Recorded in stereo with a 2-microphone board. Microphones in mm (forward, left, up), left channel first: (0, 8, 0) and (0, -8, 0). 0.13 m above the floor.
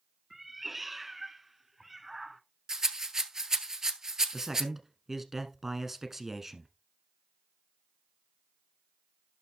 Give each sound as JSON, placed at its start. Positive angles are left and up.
{"t": 0.3, "sound": "a cat meowing", "side_deg": -10, "distance_m": 0.7}
{"t": 2.7, "sound": "a rattle", "side_deg": -40, "distance_m": 0.9}
{"t": 4.3, "sound": "a man speaking", "side_deg": -15, "distance_m": 1.1}